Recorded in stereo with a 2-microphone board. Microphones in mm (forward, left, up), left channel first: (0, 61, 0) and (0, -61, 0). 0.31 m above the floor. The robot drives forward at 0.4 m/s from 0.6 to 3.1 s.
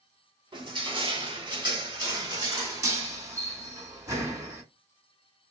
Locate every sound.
0.5 s crushing: 40° right (ahead or behind), 0.9 m; by 4.6 s 25° right (ahead or behind), 1.3 m